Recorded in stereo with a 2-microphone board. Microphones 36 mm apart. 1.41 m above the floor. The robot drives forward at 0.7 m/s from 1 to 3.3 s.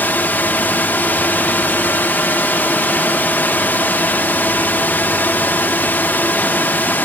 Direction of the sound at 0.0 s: 65° left (ahead or behind).